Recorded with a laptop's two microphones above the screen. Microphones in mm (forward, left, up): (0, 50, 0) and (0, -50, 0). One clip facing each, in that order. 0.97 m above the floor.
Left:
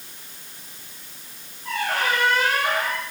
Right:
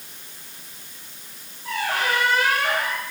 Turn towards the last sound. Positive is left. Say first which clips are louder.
# even
turn(degrees=-5)  # may be behind; listen again after turning